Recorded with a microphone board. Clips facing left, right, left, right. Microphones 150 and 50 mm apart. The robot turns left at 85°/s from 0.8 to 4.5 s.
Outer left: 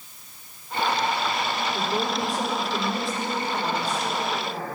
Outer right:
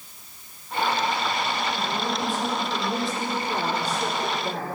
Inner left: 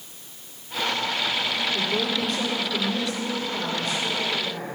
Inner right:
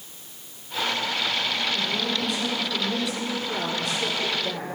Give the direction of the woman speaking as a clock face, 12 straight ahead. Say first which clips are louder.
Outer left 1 dB, inner left 2 dB; 9 o'clock.